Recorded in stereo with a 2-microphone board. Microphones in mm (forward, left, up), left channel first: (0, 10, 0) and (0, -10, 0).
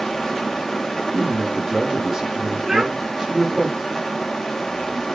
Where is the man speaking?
25° right (ahead or behind), 3 m.